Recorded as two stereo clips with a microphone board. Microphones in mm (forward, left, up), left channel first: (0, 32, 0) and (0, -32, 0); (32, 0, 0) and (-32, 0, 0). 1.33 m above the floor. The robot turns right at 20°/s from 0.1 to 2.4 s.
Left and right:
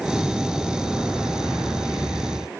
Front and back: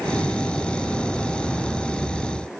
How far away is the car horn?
I don't hear a car horn.